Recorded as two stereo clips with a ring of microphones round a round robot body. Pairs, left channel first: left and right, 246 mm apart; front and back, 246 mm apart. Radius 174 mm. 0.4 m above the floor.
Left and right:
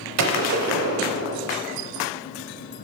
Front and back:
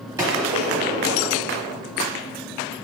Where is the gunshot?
100° right, 0.7 m.